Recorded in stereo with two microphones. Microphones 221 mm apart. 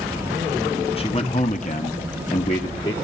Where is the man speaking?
25° left (ahead or behind), 1.2 m; by 2.9 s 30° left (ahead or behind), 1.2 m.